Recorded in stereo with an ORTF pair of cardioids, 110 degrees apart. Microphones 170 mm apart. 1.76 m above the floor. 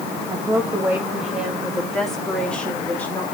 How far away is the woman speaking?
About 3 m.